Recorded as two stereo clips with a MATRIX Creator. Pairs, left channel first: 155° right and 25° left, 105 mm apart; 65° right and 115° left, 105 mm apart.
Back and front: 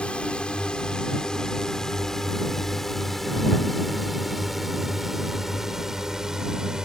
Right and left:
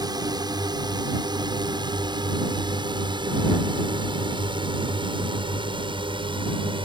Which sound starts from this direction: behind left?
A drone, at 0.0 s.